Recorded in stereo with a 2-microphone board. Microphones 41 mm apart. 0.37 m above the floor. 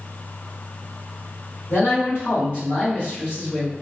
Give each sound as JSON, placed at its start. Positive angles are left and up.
{"t": 1.7, "sound": "a man speaking", "side_deg": 60, "distance_m": 1.8}